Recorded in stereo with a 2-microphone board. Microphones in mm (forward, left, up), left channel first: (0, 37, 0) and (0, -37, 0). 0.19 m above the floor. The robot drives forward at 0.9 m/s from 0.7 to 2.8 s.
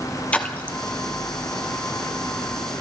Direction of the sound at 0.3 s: 20° left (ahead or behind).